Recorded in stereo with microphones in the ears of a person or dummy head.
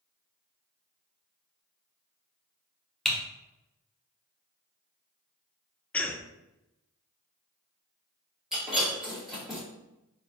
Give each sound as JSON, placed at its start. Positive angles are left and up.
{"t": 3.0, "sound": "typing on a keyboard", "side_deg": 5, "distance_m": 1.0}
{"t": 5.9, "sound": "a cough", "side_deg": 15, "distance_m": 0.5}
{"t": 8.5, "sound": "breaking glass", "side_deg": 0, "distance_m": 1.8}